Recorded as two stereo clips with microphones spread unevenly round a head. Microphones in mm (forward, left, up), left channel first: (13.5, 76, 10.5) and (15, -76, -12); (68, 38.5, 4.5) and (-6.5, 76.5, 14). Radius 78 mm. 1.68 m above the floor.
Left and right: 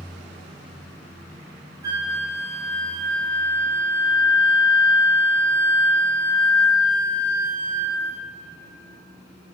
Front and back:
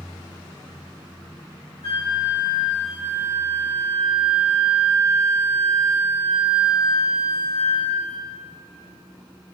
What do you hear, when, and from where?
1.8 s a flute: 160° right, 2.5 m